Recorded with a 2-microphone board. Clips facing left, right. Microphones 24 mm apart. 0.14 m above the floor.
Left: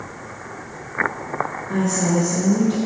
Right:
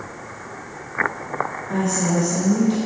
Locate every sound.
1.7 s a woman speaking: 15° right (ahead or behind), 1.9 m